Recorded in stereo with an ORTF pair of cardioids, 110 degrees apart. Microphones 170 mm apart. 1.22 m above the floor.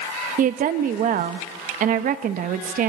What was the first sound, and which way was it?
A woman speaking, 55° right.